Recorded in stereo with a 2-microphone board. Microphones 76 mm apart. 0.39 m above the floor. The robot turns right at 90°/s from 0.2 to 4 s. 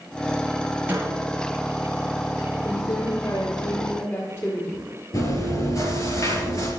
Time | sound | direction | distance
0.9 | a snare drum | 155° right | 6.5 m
2.6 | a woman speaking | 25° left | 9 m
5.1 | chewing | 45° left (ahead or behind) | 6 m